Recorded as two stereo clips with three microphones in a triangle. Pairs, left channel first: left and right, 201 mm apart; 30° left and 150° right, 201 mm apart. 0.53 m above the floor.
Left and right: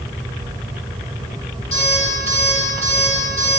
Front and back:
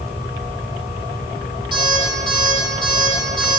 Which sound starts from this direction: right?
An alarm clock, at 1.7 s.